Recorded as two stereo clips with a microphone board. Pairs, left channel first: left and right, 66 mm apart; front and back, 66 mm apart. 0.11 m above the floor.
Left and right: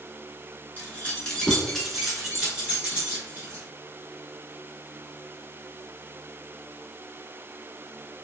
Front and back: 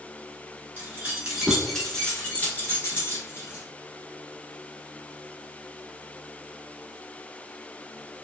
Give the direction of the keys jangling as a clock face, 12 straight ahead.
7 o'clock.